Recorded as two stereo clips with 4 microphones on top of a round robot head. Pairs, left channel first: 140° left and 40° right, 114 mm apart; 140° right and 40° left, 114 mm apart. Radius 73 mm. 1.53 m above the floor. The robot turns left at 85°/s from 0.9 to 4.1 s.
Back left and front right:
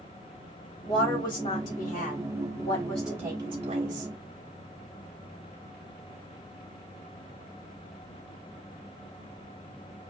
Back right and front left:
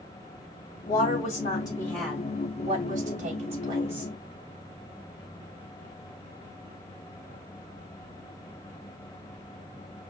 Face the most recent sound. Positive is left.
turn(degrees=-45)